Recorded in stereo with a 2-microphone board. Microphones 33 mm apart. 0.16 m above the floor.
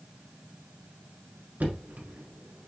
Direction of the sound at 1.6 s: 55° right (ahead or behind).